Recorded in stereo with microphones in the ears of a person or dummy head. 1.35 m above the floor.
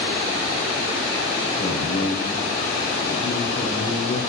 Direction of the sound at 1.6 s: 85° left.